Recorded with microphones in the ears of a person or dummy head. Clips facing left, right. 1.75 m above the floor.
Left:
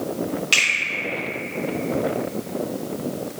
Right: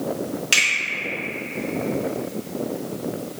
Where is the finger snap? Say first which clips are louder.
Even; 10° right (ahead or behind), 1.0 m.